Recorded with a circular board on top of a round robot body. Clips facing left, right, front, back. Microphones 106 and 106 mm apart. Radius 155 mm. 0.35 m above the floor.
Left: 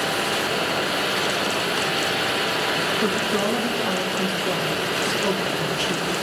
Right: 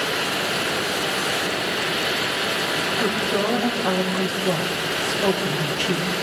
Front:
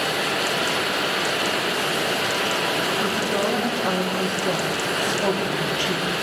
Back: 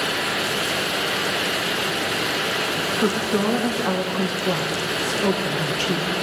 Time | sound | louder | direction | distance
3.0 | a woman speaking | right 2 dB, back 2 dB | 65° right | 3 m